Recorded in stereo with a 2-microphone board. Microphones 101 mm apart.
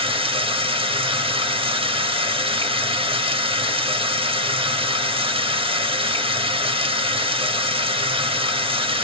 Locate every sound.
0.0 s running water: 60° right (ahead or behind), 1.1 m